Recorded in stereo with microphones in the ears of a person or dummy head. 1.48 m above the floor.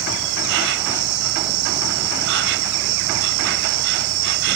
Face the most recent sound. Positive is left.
turn(degrees=-75)  # may be behind; listen again after turning